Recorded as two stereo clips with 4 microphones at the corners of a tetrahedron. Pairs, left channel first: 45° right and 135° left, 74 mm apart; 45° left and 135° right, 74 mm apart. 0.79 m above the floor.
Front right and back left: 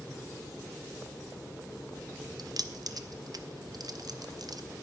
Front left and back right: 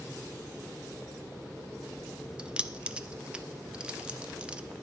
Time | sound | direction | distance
2.4 | keys jangling | 150° left | 0.5 m